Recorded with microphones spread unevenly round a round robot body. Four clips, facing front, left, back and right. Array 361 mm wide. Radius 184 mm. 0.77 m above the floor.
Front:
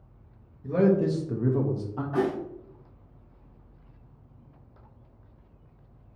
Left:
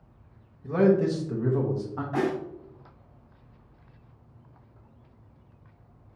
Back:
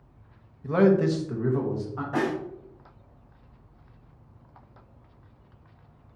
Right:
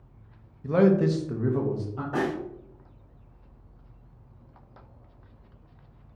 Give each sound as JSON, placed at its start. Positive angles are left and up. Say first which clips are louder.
{"t": 0.6, "sound": "a man speaking", "louder": "right 1 dB, back 2 dB", "azimuth_deg": -85, "distance_m": 0.7}
{"t": 2.1, "sound": "a snare drum", "louder": "left 1 dB, even", "azimuth_deg": -105, "distance_m": 2.5}